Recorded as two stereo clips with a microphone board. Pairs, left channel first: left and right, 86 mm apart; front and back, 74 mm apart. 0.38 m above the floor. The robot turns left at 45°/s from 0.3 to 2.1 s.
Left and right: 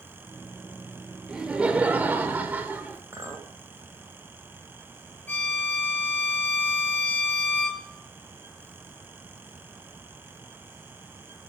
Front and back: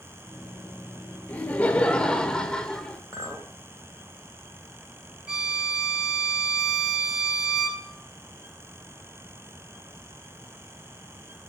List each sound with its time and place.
1.3 s laughter: 25° right, 1.0 m; by 3.0 s 60° right, 1.0 m
3.1 s a clink: 140° right, 0.9 m
5.3 s a violin: 120° left, 1.3 m